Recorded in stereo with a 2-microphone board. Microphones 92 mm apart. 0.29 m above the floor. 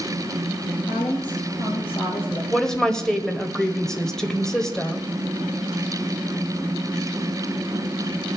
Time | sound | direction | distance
0.9 | a woman speaking | 60° left (ahead or behind) | 5 m
2.5 | a woman speaking | 5° left (ahead or behind) | 1.4 m